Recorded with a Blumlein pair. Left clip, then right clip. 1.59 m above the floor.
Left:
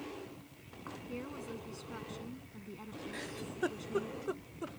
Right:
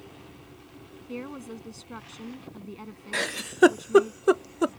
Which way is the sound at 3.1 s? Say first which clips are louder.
Right 17 dB; 40° right.